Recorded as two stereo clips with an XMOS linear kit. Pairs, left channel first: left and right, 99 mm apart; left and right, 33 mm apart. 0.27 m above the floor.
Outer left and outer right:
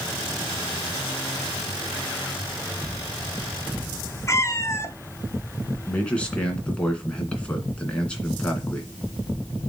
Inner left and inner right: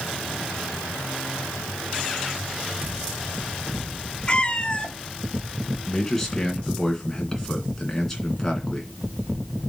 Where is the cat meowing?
30° left (ahead or behind), 0.7 m.